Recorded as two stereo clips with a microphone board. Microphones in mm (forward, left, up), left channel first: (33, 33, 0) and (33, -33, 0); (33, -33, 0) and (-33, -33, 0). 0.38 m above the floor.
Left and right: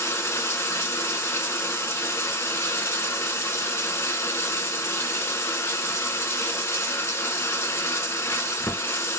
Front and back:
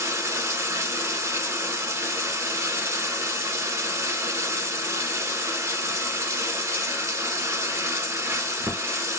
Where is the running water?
140° left, 0.8 m.